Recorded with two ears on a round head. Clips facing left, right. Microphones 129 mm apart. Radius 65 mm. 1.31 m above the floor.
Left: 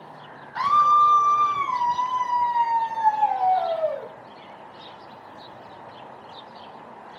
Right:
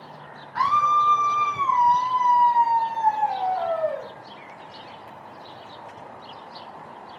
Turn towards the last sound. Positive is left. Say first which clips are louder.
# left 2 dB
turn(degrees=30)  # may be behind; listen again after turning